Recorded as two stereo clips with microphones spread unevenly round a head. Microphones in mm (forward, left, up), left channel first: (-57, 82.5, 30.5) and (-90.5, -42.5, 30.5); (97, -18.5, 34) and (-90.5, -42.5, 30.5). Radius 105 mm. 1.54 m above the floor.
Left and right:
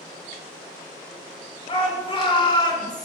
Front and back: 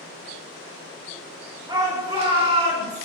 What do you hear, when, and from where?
1.7 s a shout: 115° left, 5 m; by 3.0 s 130° left, 4.5 m